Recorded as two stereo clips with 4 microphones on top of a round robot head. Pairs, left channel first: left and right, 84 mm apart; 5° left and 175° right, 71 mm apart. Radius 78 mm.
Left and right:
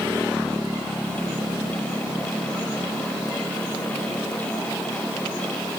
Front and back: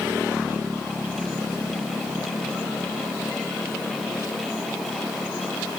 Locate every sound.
Only background noise.